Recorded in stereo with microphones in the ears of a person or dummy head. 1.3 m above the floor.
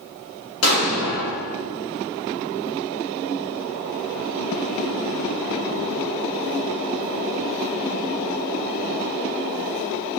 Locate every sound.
0.6 s an explosion: 75° left (ahead or behind), 2.5 m